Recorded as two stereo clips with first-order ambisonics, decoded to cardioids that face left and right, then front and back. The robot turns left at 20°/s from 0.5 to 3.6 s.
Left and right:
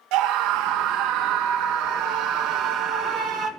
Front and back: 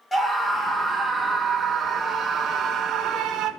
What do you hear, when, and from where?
0.1 s a scream: 85° right, 1.5 m; by 3.5 s 145° right, 1.5 m